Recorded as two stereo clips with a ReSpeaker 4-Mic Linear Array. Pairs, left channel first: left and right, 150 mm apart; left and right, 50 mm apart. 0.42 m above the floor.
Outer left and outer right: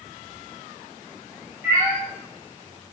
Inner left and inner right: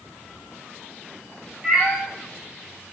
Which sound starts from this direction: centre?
A cat meowing, at 1.6 s.